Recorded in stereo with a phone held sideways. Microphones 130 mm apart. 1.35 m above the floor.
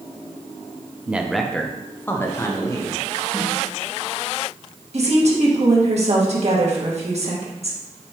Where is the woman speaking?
55° right (ahead or behind), 1.7 m.